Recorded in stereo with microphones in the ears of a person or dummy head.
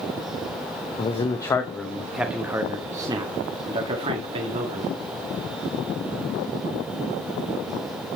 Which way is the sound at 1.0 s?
25° left (ahead or behind).